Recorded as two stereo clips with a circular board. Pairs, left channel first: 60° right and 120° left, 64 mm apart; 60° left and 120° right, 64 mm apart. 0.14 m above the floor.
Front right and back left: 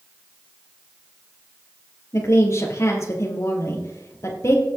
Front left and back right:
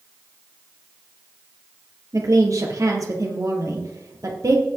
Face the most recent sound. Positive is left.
turn(degrees=-100)